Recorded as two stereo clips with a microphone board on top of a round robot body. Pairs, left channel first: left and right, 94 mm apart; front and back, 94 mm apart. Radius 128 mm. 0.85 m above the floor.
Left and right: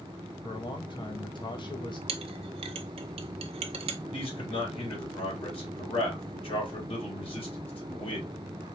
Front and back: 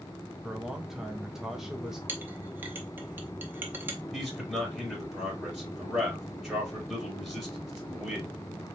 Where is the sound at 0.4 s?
95° left, 1.0 m.